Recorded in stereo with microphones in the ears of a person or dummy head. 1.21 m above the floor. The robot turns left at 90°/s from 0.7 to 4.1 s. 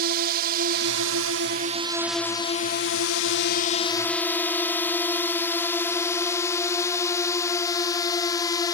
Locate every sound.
0.0 s a drone: 50° right (ahead or behind); by 8.8 s 20° left (ahead or behind)